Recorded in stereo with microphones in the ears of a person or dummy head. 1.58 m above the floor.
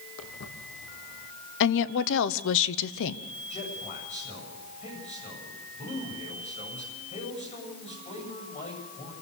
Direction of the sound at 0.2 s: 65° left (ahead or behind).